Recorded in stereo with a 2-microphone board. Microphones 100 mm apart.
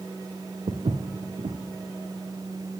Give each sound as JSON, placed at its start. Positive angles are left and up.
{"t": 0.7, "sound": "footsteps", "side_deg": -75, "distance_m": 0.7}